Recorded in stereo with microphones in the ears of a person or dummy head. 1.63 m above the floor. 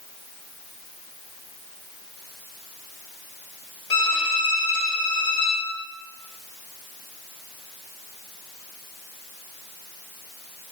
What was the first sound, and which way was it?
A violin, 35° left (ahead or behind).